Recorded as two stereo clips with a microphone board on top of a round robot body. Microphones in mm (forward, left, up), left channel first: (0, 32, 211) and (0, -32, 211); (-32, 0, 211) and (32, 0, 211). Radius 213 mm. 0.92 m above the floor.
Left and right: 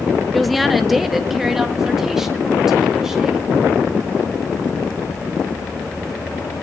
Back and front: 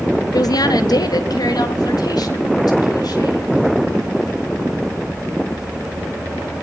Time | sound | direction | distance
0.3 | a woman speaking | straight behind | 1.7 m